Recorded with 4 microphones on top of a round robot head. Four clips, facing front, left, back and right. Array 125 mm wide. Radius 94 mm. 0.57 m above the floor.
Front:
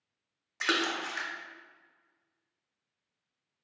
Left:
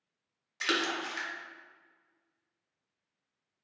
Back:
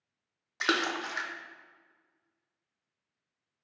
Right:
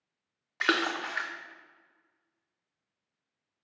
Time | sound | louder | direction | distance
0.6 | a splash | right 4 dB, back 1 dB | 110° right | 0.6 m